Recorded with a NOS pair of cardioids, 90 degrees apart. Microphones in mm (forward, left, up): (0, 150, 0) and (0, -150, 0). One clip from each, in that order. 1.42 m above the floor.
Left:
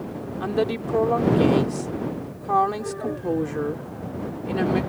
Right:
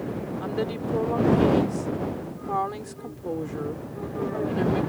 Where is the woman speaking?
45° left.